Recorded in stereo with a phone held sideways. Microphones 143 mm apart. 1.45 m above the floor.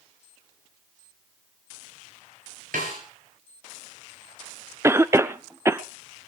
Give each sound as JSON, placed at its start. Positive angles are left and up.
{"t": 2.7, "sound": "a snare drum", "side_deg": -80, "distance_m": 7.0}
{"t": 4.8, "sound": "a cough", "side_deg": -20, "distance_m": 0.5}